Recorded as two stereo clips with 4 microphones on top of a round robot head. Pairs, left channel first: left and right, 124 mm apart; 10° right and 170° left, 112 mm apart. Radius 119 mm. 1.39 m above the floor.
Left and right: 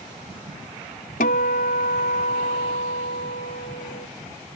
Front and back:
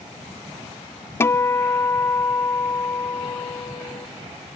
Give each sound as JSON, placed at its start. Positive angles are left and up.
{"t": 1.2, "sound": "a guitar", "azimuth_deg": 55}